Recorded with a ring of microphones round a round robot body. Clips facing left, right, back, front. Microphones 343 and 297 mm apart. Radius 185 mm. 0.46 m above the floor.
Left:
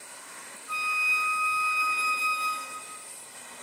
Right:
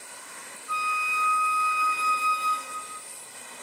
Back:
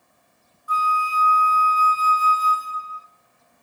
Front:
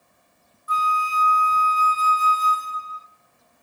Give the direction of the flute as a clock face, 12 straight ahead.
10 o'clock.